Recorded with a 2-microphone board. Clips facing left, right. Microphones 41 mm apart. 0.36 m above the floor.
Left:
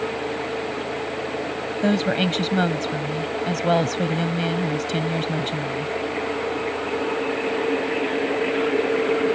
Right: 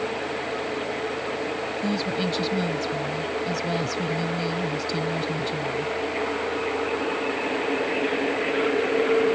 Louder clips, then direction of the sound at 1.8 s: Left 7 dB; 55° left (ahead or behind).